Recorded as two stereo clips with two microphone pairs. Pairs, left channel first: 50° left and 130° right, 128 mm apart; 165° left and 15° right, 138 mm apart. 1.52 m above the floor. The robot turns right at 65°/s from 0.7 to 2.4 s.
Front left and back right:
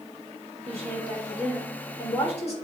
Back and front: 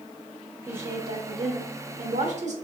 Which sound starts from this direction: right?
A woman speaking, at 0.7 s.